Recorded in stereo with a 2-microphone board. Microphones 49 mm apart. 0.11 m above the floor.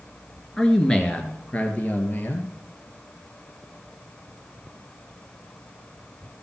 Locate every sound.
0.6 s a man speaking: 10° left (ahead or behind), 1.6 m; by 2.5 s 45° left (ahead or behind), 2 m